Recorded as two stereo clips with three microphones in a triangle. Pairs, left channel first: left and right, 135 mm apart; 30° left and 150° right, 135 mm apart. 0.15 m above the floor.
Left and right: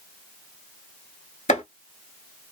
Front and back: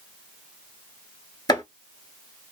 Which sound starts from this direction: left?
Chopping, at 1.5 s.